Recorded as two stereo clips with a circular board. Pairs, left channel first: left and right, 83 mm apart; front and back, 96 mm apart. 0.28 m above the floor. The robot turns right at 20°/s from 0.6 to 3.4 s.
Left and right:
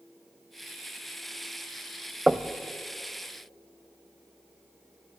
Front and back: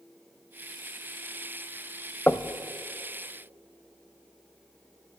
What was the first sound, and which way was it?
Knocking, 25° right.